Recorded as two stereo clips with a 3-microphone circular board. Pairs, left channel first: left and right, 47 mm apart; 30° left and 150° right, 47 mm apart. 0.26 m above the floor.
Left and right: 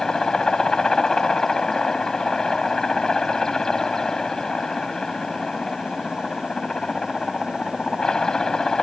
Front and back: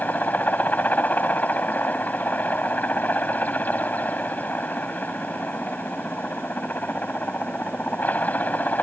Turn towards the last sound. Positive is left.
turn(degrees=20)